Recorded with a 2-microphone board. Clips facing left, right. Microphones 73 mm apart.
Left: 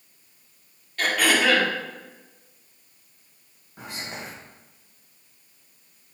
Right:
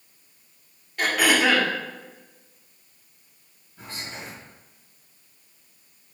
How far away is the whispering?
About 1.2 m.